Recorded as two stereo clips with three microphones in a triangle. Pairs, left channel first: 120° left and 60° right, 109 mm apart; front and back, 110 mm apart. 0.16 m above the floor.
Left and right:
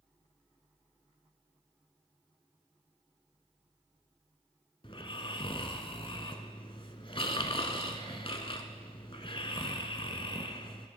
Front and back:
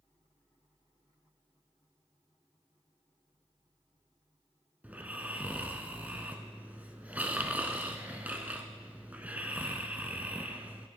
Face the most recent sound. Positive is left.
turn(degrees=105)